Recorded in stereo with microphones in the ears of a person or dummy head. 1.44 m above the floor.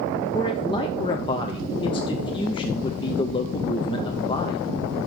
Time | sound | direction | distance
0.3 | a man speaking | 25° left (ahead or behind) | 0.6 m